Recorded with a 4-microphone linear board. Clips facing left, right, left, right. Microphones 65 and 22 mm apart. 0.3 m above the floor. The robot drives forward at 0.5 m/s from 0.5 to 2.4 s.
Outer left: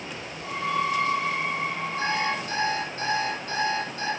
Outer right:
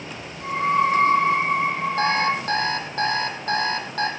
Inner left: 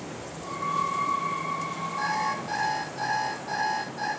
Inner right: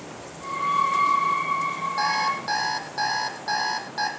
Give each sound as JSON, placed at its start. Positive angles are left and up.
{"t": 2.0, "sound": "an alarm clock", "side_deg": -60, "distance_m": 4.5}